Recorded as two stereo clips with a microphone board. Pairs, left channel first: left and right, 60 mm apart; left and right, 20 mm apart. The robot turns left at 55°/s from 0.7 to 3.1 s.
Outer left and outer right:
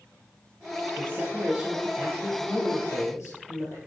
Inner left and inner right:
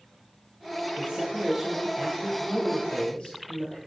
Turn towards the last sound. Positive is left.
turn(degrees=120)